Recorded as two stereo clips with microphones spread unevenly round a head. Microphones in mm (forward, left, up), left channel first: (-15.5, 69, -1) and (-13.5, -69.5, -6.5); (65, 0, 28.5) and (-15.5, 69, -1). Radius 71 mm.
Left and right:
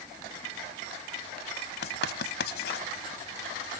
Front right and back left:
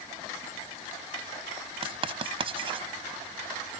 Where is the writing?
100° left.